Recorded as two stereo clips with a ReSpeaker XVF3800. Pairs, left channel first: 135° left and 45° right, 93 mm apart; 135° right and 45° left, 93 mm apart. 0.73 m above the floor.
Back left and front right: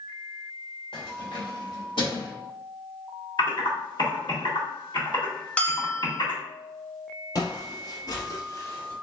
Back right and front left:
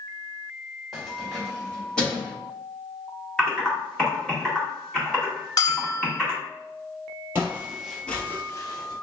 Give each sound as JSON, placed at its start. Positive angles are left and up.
{"t": 0.9, "sound": "keys jangling", "azimuth_deg": 135, "distance_m": 1.6}
{"t": 3.4, "sound": "typing on a keyboard", "azimuth_deg": 145, "distance_m": 1.9}
{"t": 5.6, "sound": "a bell", "azimuth_deg": -155, "distance_m": 0.7}
{"t": 7.3, "sound": "footsteps", "azimuth_deg": 105, "distance_m": 1.2}